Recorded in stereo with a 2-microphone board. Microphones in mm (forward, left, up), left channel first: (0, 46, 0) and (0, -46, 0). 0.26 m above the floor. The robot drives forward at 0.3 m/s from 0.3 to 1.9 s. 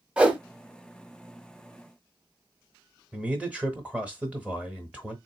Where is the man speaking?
15° right (ahead or behind), 1.0 m.